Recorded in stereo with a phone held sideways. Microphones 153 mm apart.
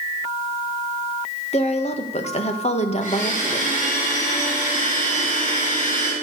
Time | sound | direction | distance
1.5 | a woman speaking | 45° left (ahead or behind) | 1.9 m
3.0 | a blender | 55° left (ahead or behind) | 5.5 m